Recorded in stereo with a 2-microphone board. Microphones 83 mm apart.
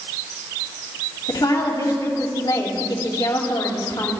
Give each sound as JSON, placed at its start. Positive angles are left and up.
{"t": 1.3, "sound": "a woman speaking", "side_deg": 75, "distance_m": 2.5}